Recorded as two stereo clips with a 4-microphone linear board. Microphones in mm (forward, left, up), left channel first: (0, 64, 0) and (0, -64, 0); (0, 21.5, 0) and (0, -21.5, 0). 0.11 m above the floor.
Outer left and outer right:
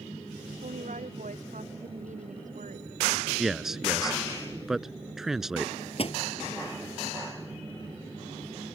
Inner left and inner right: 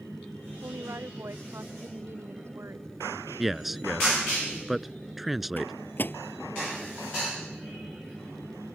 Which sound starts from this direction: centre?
A man speaking, at 3.4 s.